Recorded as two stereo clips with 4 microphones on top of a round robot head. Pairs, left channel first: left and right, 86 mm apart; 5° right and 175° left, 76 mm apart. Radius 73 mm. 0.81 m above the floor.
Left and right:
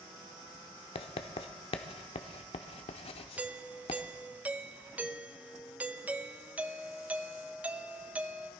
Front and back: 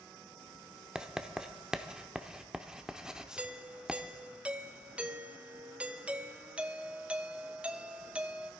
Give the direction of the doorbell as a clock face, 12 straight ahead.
4 o'clock.